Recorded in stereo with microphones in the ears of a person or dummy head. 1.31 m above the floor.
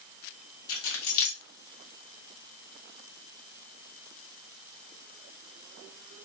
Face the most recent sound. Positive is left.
turn(degrees=70)  # may be behind; listen again after turning